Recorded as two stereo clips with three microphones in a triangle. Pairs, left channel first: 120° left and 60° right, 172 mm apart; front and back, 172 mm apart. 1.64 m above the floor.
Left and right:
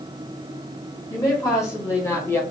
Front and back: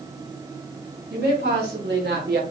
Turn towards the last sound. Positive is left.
turn(degrees=-165)